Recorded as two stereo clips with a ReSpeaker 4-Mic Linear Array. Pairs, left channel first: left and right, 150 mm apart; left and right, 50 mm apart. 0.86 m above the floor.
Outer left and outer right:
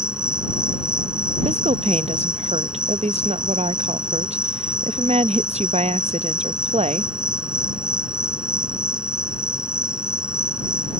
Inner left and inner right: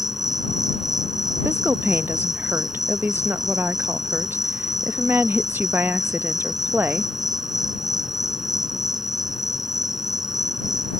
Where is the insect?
5° right (ahead or behind).